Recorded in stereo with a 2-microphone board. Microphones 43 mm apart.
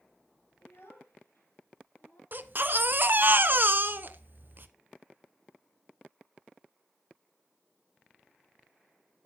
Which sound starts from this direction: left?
A child speaking, at 0.6 s.